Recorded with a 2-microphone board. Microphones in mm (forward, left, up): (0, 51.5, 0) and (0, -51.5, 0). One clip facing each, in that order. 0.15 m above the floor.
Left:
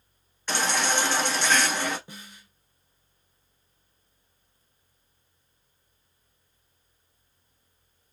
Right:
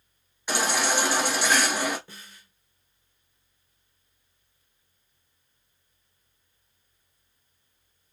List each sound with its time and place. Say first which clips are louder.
0.5 s a baby crying: right 1 dB; 10° right (ahead or behind), 1.0 m
2.1 s a snare drum: left 3 dB; 15° left (ahead or behind), 0.8 m